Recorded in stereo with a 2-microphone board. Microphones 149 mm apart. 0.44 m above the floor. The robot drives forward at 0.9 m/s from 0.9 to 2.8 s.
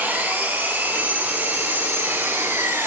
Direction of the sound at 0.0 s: 10° right (ahead or behind).